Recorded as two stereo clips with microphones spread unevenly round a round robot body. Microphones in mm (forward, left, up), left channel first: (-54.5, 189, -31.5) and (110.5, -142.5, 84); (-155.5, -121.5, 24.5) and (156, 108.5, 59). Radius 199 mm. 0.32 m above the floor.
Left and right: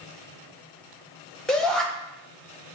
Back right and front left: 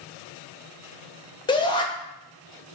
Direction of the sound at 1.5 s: 165° left.